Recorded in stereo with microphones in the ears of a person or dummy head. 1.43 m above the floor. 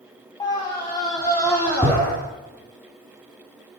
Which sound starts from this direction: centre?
A scream, at 0.4 s.